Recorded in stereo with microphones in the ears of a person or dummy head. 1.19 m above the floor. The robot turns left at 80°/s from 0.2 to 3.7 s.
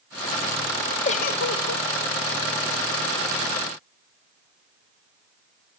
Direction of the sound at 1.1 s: 145° left.